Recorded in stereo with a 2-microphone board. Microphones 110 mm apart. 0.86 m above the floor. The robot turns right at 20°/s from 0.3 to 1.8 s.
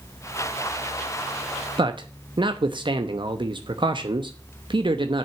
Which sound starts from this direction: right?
A man speaking, at 1.8 s.